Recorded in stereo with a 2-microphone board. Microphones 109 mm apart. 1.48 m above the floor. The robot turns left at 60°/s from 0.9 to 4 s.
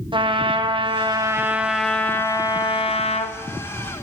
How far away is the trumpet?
About 0.7 m.